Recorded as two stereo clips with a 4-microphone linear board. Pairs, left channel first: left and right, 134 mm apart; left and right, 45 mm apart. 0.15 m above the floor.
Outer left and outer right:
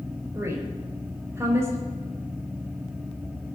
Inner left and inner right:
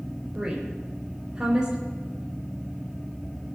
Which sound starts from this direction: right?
A woman speaking, at 0.3 s.